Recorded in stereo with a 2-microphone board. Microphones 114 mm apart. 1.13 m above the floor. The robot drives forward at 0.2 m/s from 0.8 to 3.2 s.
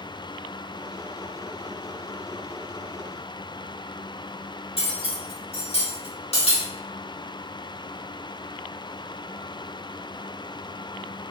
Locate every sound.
4.8 s cutlery clinking: 60° left (ahead or behind), 1.5 m